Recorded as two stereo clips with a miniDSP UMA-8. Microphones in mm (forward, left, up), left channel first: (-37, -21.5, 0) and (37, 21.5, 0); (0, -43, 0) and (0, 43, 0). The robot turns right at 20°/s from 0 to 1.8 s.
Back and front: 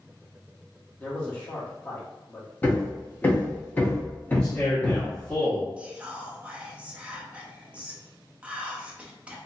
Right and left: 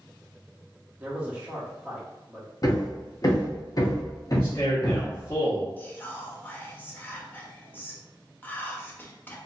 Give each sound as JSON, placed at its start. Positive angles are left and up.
{"t": 1.0, "sound": "a man speaking", "azimuth_deg": 150, "distance_m": 1.0}
{"t": 2.6, "sound": "hammering", "azimuth_deg": -90, "distance_m": 0.8}
{"t": 4.3, "sound": "a man speaking", "azimuth_deg": -90, "distance_m": 1.3}
{"t": 5.8, "sound": "whispering", "azimuth_deg": -35, "distance_m": 0.7}